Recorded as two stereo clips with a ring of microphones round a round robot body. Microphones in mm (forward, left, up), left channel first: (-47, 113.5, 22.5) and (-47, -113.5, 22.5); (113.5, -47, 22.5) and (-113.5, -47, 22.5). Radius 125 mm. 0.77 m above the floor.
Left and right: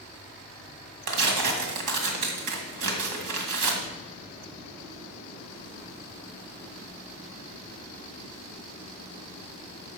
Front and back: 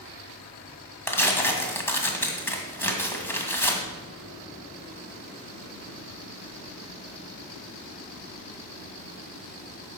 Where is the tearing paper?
80° right, 2 m.